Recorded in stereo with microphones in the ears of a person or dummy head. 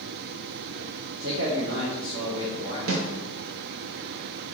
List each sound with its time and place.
1.2 s a man speaking: 85° right, 0.6 m; by 2.8 s 25° right (ahead or behind), 1.0 m
2.9 s a snare drum: 75° right (ahead or behind), 0.5 m